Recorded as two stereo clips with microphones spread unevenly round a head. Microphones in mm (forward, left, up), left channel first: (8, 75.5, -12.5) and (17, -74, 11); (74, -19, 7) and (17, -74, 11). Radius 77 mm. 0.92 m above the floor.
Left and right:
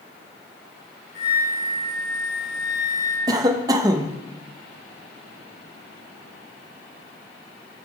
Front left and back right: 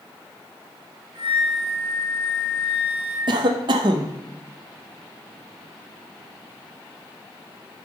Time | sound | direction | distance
1.1 | a flute | 165° left | 3 m
3.3 | a cough | 155° right | 0.6 m